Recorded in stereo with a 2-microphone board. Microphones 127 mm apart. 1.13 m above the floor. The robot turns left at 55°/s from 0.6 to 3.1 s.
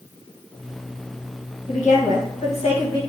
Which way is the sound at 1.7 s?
110° left.